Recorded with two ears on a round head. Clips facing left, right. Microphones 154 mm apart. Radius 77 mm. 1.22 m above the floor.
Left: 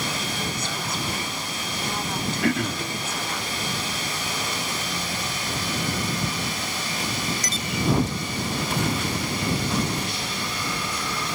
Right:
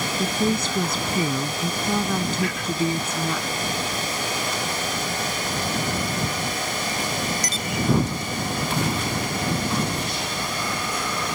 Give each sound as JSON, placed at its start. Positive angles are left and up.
{"t": 0.2, "sound": "a woman speaking", "side_deg": -65}
{"t": 2.4, "sound": "throat clearing", "side_deg": 45}